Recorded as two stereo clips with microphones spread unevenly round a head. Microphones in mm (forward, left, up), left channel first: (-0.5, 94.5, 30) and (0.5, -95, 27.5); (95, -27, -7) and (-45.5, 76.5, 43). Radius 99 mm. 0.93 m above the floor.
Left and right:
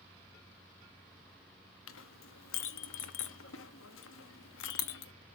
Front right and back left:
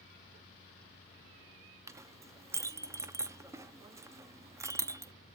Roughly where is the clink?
Left.